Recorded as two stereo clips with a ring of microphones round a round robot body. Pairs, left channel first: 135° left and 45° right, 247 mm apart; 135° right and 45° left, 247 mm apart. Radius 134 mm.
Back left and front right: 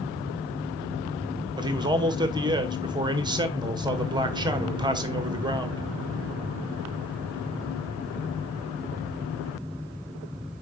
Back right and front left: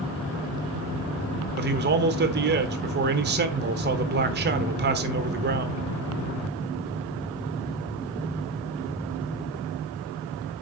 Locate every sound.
1.6 s a man speaking: 20° left, 1.2 m